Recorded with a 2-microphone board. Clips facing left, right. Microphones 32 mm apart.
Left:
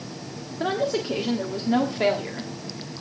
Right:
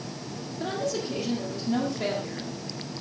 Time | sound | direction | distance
0.6 | a woman speaking | 35° left (ahead or behind) | 1.5 m